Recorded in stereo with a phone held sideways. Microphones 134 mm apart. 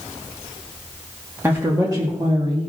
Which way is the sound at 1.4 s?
20° right (ahead or behind).